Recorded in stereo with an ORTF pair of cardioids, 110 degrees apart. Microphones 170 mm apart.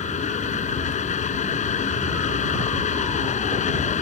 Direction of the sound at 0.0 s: 45° left.